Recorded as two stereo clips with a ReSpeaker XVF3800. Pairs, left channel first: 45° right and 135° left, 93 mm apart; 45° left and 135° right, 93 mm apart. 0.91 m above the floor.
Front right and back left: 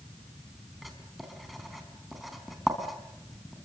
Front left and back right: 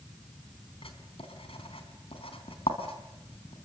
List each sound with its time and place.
0.8 s writing: 45° left, 3.5 m